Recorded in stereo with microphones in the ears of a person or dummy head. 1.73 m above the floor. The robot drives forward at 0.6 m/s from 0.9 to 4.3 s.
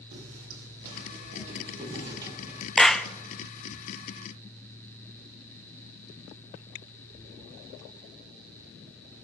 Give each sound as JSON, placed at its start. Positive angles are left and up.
{"t": 0.1, "sound": "footsteps", "side_deg": -55, "distance_m": 4.5}
{"t": 2.8, "sound": "a clap", "side_deg": 5, "distance_m": 0.7}